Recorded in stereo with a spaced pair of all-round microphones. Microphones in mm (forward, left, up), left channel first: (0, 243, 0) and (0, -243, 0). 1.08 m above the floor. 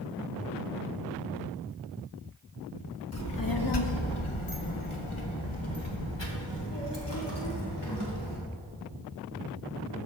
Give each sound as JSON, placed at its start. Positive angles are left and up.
{"t": 3.1, "sound": "a child speaking", "side_deg": 30, "distance_m": 1.0}